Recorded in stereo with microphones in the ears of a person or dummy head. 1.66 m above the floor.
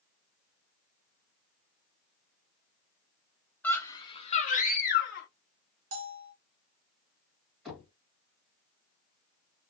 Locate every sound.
3.6 s a scream: 10° left (ahead or behind), 0.8 m; by 5.3 s 65° left (ahead or behind), 1.0 m
5.9 s a bell: 55° right (ahead or behind), 0.6 m
7.7 s knocking: centre (ahead or behind), 1.5 m